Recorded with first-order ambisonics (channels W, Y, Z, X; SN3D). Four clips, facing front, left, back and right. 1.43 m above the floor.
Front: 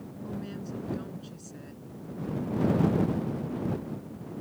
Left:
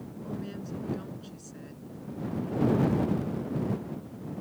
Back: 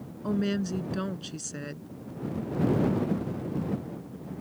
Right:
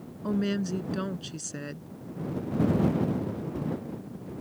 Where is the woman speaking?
135° right.